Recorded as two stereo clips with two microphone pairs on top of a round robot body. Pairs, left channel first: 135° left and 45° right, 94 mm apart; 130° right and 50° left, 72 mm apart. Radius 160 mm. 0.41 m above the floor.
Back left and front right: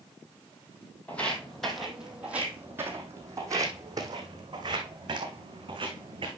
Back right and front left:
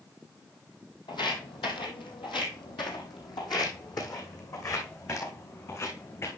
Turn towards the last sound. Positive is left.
turn(degrees=-75)